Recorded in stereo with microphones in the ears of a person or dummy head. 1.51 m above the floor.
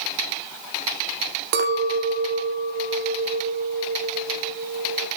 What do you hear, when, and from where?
1.5 s a clink: 55° right (ahead or behind), 2 m